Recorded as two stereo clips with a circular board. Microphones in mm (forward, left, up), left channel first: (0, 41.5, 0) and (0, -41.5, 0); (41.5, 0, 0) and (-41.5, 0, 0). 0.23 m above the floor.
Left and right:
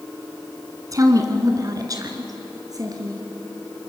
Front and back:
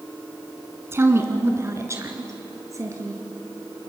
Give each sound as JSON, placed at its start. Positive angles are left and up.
{"t": 0.9, "sound": "a woman speaking", "azimuth_deg": -125, "distance_m": 2.0}